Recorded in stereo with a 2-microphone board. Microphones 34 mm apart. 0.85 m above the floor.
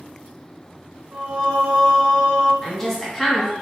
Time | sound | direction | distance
1.1 | singing | 50° right (ahead or behind) | 2.0 m
2.6 | a woman speaking | 5° left (ahead or behind) | 1.4 m